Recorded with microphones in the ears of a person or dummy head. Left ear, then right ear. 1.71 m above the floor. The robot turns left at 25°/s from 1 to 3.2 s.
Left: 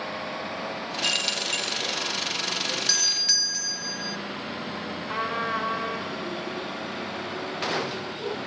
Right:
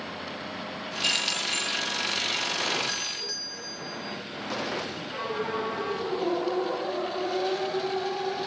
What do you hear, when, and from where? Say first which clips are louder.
1.0 s keys jangling: even; 10° right (ahead or behind), 1.9 m; by 1.7 s 5° left (ahead or behind), 1.9 m
2.9 s a doorbell: left 9 dB; 55° left (ahead or behind), 1.1 m; by 4.2 s 60° left (ahead or behind), 1.1 m
5.1 s a trumpet: left 5 dB; 40° left (ahead or behind), 4 m